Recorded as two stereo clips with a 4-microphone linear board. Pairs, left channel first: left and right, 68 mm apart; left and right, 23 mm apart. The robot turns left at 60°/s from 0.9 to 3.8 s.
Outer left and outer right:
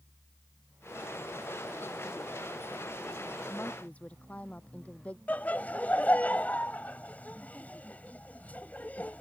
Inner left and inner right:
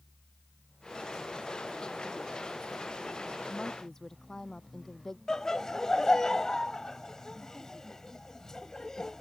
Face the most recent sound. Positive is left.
turn(degrees=25)  # may be behind; listen again after turning